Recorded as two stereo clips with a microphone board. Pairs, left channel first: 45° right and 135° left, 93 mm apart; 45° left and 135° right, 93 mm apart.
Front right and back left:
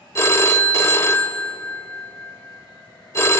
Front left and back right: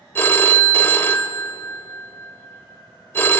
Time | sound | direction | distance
0.1 | a phone ringing | 5° right | 0.6 m